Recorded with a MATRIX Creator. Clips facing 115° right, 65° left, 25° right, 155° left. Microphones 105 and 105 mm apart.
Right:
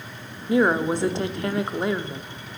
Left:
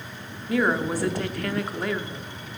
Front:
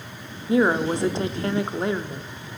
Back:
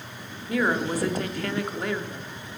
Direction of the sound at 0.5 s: 65° right.